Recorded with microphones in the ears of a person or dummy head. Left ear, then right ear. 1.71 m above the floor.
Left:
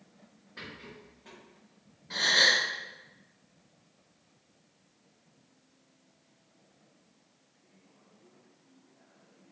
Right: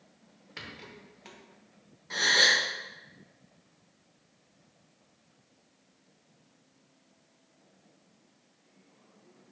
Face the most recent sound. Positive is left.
turn(degrees=-25)  # may be behind; listen again after turning